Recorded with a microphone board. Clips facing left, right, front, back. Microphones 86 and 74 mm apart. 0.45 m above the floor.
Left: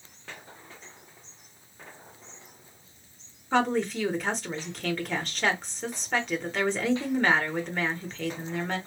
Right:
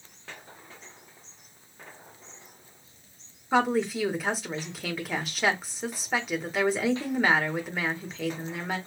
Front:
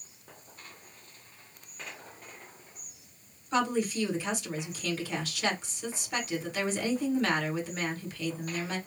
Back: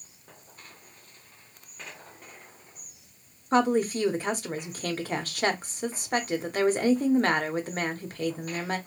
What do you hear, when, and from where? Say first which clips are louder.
3.5 s a woman speaking: right 1 dB, back 5 dB; 170° right, 1.0 m